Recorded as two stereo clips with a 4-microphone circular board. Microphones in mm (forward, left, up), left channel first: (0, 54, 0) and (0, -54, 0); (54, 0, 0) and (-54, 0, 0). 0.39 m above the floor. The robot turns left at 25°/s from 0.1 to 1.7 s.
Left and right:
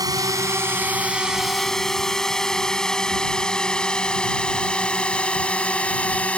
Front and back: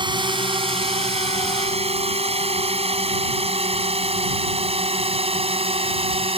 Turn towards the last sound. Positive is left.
turn(degrees=165)